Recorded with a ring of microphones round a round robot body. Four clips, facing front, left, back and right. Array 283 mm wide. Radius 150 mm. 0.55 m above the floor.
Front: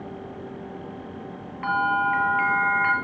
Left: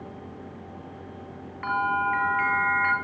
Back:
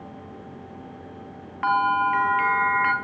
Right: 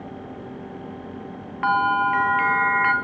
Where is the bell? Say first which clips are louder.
Right 5 dB, back 2 dB; 120° right, 1.7 m.